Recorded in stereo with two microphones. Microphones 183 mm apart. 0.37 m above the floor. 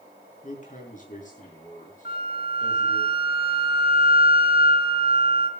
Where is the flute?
60° left (ahead or behind), 3.5 m.